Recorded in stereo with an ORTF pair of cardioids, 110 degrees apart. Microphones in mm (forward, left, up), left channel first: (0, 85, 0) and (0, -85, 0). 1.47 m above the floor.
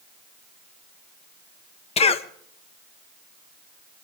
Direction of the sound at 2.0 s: 35° left.